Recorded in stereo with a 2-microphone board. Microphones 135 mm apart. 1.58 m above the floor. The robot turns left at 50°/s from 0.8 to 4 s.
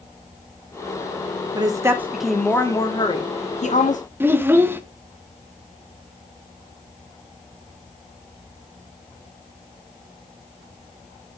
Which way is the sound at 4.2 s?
15° right (ahead or behind).